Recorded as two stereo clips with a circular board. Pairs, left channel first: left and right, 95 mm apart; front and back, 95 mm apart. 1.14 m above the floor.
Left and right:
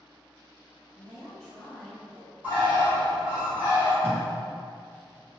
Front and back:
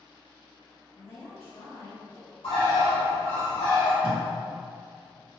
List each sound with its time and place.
0.9 s a woman speaking: 5° left, 1.4 m
2.4 s a bird: 15° right, 1.3 m
4.0 s tape being pulled: 165° left, 0.7 m